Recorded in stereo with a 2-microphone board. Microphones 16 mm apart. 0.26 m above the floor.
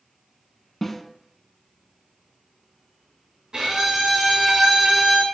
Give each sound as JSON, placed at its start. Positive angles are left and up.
{"t": 0.8, "sound": "a snare drum", "side_deg": 15, "distance_m": 0.7}
{"t": 3.5, "sound": "a violin", "side_deg": -50, "distance_m": 1.6}